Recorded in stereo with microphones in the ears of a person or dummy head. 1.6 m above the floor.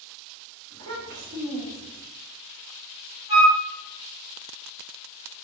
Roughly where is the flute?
Right.